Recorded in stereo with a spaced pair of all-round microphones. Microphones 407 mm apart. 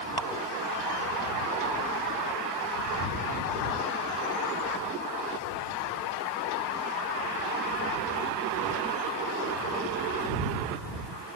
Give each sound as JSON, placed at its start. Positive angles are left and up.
{"t": 0.2, "sound": "dripping", "side_deg": 70}